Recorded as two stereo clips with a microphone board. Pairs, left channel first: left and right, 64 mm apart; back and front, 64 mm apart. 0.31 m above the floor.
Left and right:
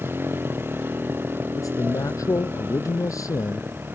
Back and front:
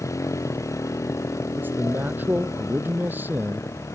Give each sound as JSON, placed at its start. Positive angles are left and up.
{"t": 0.0, "sound": "a motorcycle", "azimuth_deg": -145}
{"t": 1.6, "sound": "a man speaking", "azimuth_deg": 60}